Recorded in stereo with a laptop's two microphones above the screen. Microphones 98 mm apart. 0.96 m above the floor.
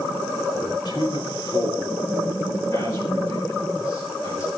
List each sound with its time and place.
0.6 s a man speaking: 50° left (ahead or behind), 3 m; by 4.5 s 25° left (ahead or behind), 5.5 m